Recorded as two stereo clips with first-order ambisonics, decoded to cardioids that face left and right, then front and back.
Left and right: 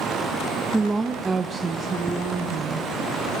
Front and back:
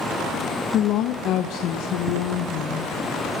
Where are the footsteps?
175° right, 5 m.